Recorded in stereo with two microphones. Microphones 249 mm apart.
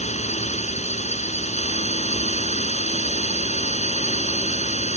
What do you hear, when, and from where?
0.0 s a drone: 25° left (ahead or behind)